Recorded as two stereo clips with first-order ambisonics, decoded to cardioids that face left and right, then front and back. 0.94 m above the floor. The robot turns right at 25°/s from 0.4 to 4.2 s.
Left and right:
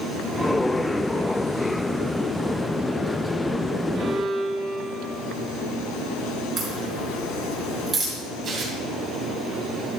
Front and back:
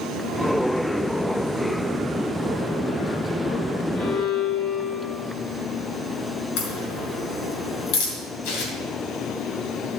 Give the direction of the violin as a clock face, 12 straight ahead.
2 o'clock.